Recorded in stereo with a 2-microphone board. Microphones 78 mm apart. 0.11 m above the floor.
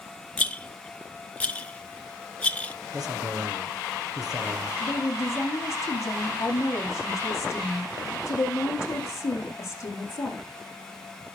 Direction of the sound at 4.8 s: 40° left (ahead or behind).